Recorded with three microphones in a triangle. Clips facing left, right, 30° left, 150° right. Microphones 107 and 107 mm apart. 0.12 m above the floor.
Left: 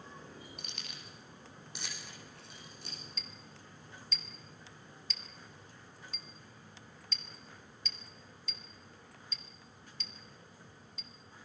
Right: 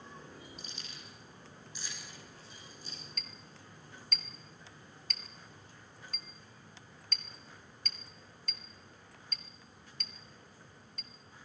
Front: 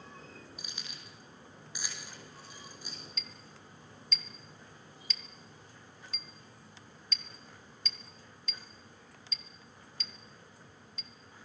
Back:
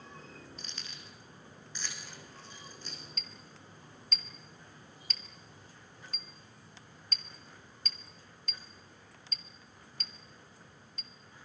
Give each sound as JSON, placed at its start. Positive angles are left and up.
{"t": 0.6, "sound": "keys jangling", "azimuth_deg": 110, "distance_m": 4.0}
{"t": 3.2, "sound": "a clink", "azimuth_deg": -110, "distance_m": 1.6}